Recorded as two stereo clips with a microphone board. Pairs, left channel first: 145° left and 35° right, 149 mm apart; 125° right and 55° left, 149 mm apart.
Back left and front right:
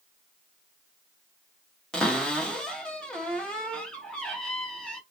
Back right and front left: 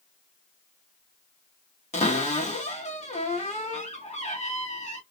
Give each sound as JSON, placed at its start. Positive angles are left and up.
{"t": 1.9, "sound": "a cupboard door", "azimuth_deg": -130, "distance_m": 0.9}